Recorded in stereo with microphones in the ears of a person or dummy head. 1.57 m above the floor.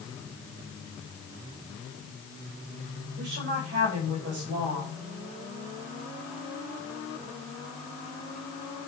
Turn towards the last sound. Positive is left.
turn(degrees=-55)  # may be behind; listen again after turning